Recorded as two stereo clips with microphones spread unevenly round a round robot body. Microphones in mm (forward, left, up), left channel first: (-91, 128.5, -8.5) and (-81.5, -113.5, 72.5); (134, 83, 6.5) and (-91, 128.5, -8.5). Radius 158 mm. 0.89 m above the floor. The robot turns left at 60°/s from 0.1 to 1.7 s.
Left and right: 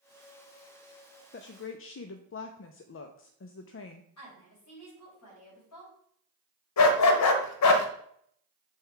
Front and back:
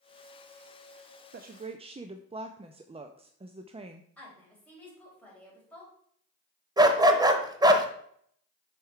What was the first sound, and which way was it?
A woman speaking, 125° left.